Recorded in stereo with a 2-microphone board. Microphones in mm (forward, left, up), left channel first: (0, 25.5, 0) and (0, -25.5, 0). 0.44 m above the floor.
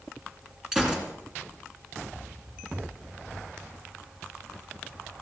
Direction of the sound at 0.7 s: 10° right (ahead or behind).